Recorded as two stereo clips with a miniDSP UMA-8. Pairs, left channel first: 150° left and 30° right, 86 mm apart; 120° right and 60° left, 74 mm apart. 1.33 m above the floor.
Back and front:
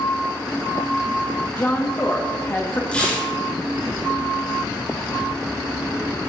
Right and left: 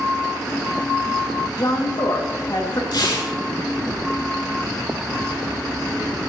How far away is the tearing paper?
About 6.5 m.